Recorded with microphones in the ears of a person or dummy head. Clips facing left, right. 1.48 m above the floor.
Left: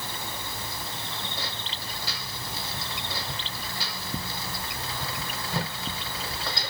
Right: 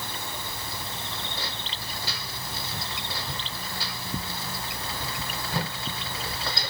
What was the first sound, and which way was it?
Only background noise.